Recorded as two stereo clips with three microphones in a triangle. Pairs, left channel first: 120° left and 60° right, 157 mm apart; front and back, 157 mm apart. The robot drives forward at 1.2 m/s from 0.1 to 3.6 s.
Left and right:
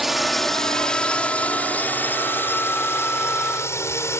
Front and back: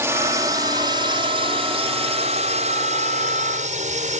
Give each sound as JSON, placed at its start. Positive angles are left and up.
{"t": 0.0, "sound": "a drone", "azimuth_deg": -145}